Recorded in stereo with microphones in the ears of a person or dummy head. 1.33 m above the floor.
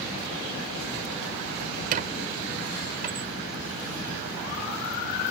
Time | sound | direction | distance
1.9 | a squeak | 50° right (ahead or behind) | ?